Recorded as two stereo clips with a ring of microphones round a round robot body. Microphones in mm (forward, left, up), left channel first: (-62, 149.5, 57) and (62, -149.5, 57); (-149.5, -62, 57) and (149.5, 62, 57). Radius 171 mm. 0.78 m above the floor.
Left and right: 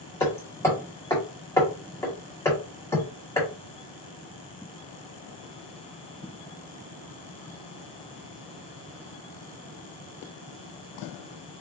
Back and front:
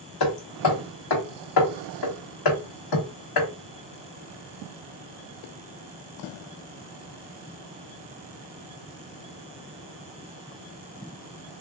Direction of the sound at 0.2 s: 165° right.